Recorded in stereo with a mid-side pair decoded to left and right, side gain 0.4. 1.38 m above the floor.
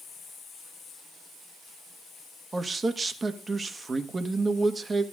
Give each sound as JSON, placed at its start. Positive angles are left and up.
{"t": 2.5, "sound": "a man speaking", "azimuth_deg": -35, "distance_m": 1.8}